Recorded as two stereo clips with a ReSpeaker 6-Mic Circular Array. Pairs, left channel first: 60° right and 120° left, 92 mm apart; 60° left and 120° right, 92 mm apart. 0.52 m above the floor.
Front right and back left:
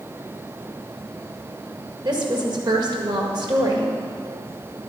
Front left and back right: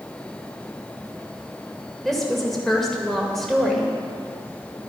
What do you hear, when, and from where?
2.0 s a woman speaking: 145° left, 1.8 m